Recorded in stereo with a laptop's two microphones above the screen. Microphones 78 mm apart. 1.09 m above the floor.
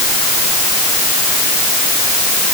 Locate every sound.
Only background noise.